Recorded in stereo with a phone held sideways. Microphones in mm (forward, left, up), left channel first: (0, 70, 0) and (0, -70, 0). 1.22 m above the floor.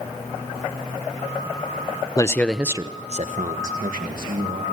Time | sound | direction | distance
2.2 | a man speaking | 25° left (ahead or behind) | 1.0 m